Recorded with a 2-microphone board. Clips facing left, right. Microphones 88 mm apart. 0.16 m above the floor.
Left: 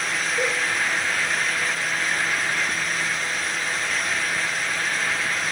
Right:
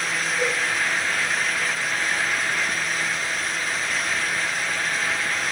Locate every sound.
0.4 s a cowbell: 40° left (ahead or behind), 2.0 m